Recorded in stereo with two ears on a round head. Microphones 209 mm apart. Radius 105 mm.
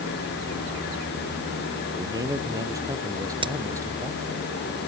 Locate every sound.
1.9 s a man speaking: 15° right (ahead or behind)
3.4 s a crack: 25° right (ahead or behind)